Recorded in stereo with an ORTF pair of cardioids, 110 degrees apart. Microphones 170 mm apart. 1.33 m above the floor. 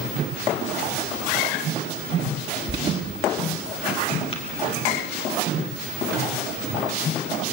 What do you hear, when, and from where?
2.7 s an alarm: 30° right, 1.9 m
4.3 s tapping: 30° left, 3 m